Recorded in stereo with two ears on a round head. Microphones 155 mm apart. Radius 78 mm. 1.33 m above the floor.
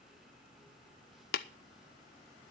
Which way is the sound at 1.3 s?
60° left (ahead or behind).